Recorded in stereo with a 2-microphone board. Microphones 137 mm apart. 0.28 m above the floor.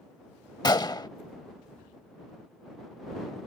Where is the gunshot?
30° left (ahead or behind).